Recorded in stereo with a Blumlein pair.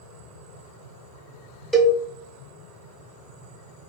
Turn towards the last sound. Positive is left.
turn(degrees=5)